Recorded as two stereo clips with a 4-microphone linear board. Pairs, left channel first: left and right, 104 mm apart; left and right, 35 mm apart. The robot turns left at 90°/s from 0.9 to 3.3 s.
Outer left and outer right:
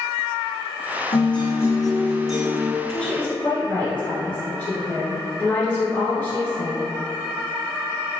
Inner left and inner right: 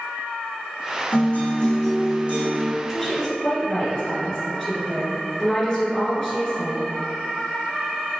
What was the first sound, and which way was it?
A guitar, 70° left.